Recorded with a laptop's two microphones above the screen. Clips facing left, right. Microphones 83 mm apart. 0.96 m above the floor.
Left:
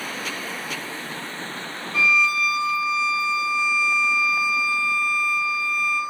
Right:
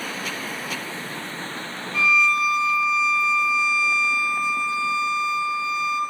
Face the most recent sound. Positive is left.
turn(degrees=0)  # may be behind; listen again after turning